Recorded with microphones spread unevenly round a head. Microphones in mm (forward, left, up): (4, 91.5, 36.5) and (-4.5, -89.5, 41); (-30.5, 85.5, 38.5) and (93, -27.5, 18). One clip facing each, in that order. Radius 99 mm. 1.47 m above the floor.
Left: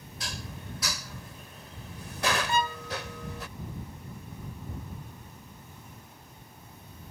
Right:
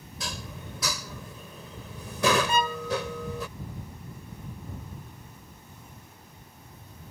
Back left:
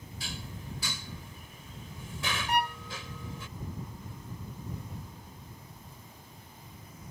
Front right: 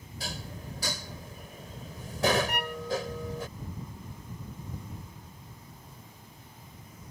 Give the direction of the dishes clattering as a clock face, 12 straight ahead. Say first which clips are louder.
Right 2 dB, front right 3 dB; 3 o'clock.